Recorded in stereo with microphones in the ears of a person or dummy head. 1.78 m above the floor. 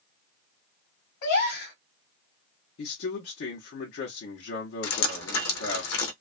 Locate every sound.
1.2 s a gasp: 50° left (ahead or behind), 1.3 m
2.8 s a man speaking: 55° left (ahead or behind), 0.7 m
4.8 s dripping: 80° left, 0.8 m